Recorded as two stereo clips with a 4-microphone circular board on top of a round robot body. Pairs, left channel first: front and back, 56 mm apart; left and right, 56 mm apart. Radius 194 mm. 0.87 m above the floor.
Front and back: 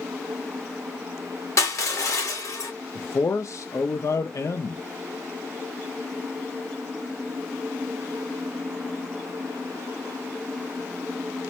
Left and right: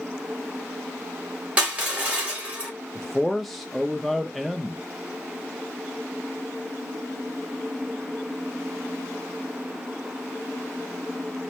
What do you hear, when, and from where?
1.6 s crushing: 25° right, 2.5 m
3.0 s a man speaking: straight ahead, 0.6 m